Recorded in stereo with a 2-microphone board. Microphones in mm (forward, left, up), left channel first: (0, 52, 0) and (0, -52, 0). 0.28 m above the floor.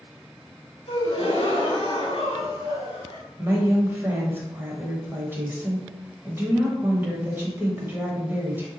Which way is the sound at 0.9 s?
60° left (ahead or behind).